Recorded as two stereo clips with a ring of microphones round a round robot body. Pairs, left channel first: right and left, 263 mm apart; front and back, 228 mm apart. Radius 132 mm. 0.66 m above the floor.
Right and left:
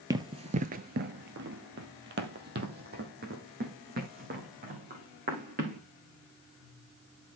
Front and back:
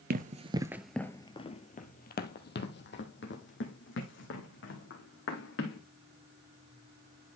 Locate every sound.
0.1 s running footsteps: 160° left, 0.8 m; by 5.8 s 30° left, 3.5 m